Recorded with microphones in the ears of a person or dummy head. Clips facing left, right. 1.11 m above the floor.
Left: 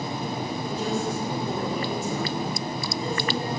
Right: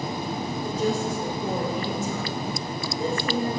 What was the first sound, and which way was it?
A woman speaking, 80° right.